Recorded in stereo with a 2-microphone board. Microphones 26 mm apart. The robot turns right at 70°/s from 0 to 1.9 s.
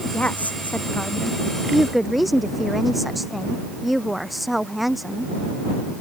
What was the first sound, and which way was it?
A woman speaking, 60° left.